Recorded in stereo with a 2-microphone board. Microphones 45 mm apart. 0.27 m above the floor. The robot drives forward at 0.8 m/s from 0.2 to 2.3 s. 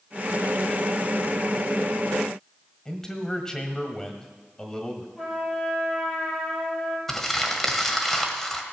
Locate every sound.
2.9 s a man speaking: 15° left (ahead or behind), 1.5 m
5.2 s a trumpet: centre (ahead or behind), 5 m
7.1 s crumpling: 5° left (ahead or behind), 1.6 m